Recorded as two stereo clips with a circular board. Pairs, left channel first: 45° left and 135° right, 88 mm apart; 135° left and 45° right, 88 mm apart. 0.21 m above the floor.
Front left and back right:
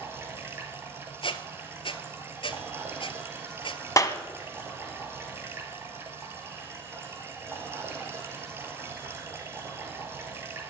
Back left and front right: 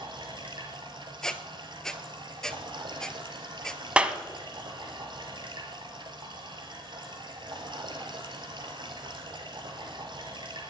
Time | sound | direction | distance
0.0 | running water | 75° right | 2 m
1.2 | a squeak | 50° left | 0.9 m
4.0 | a clap | 25° left | 1.0 m